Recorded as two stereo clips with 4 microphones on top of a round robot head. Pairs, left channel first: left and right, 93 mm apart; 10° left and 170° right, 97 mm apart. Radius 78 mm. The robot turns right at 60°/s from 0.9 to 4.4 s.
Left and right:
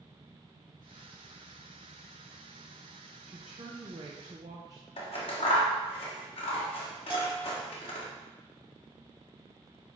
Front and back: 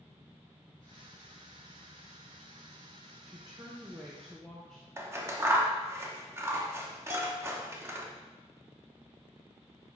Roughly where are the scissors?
Behind left.